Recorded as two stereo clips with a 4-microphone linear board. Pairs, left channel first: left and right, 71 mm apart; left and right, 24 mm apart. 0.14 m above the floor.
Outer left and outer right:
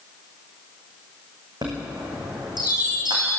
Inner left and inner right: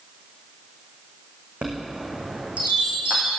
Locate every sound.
1.6 s a chime: 75° right (ahead or behind), 4 m